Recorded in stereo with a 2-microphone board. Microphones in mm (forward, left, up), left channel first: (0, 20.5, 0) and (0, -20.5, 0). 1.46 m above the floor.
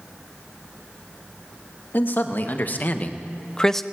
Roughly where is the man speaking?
Left.